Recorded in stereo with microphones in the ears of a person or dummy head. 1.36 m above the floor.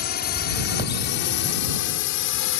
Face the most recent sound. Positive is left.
turn(degrees=70)  # may be behind; listen again after turning